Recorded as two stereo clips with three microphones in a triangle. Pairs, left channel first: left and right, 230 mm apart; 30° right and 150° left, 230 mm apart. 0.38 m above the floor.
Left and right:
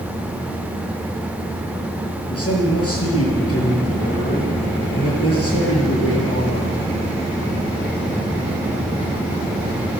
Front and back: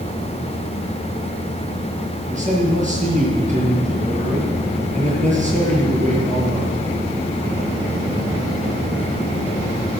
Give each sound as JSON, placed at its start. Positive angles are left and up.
{"t": 2.3, "sound": "a man speaking", "azimuth_deg": 95, "distance_m": 6.5}